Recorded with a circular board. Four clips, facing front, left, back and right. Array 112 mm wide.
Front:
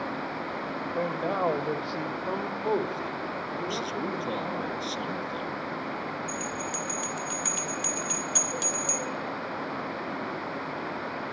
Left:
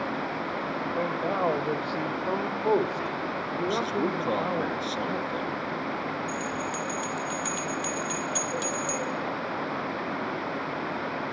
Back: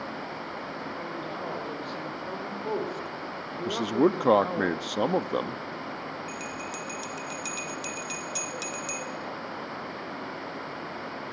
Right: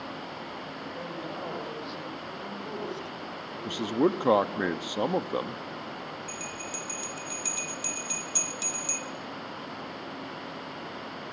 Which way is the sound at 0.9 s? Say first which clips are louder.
Left 10 dB, front 7 dB; 40° left.